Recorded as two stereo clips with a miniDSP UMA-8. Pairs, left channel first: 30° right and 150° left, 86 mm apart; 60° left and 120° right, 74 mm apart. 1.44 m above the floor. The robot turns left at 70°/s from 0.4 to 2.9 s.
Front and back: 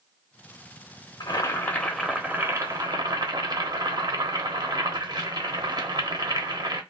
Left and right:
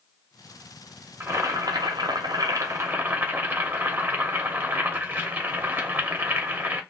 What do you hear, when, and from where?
1.2 s boiling: 60° right, 0.7 m; by 6.8 s straight behind, 0.7 m